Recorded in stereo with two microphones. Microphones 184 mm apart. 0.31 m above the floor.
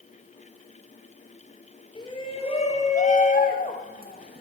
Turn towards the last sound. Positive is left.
turn(degrees=60)  # may be behind; listen again after turning